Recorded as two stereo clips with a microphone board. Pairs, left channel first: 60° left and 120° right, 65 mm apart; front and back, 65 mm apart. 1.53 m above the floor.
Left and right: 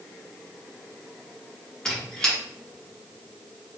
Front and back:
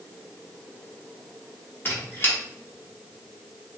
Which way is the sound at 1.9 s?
5° right.